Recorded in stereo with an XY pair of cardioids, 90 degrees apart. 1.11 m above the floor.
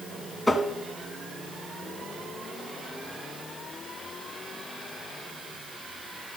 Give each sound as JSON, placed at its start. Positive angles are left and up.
{"t": 0.5, "sound": "tapping", "azimuth_deg": 15, "distance_m": 1.0}